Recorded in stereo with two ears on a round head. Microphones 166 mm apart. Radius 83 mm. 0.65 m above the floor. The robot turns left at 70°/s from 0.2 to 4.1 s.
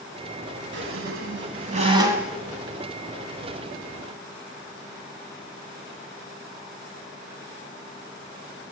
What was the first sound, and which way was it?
A squeak, 65° right.